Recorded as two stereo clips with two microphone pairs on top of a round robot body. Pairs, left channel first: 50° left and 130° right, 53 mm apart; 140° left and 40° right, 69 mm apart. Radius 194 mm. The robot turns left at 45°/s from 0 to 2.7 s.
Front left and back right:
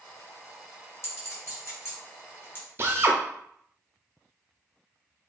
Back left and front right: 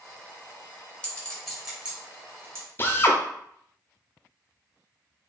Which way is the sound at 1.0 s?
70° left.